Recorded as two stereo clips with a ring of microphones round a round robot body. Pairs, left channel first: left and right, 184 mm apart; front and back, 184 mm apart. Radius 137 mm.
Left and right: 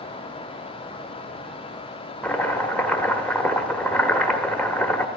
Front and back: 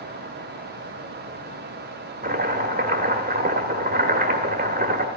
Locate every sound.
2.2 s chopping: 170° left, 1.4 m